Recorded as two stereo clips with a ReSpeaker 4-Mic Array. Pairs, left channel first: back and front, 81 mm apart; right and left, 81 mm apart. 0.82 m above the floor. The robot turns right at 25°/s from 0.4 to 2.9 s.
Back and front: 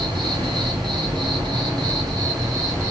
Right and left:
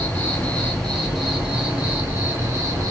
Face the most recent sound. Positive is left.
turn(degrees=45)